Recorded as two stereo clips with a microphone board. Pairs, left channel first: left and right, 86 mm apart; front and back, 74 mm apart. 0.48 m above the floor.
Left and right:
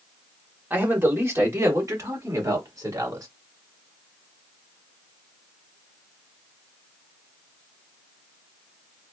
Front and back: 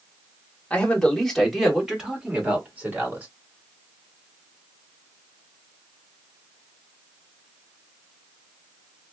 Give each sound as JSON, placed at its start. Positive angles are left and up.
{"t": 0.7, "sound": "a man speaking", "azimuth_deg": -55, "distance_m": 1.5}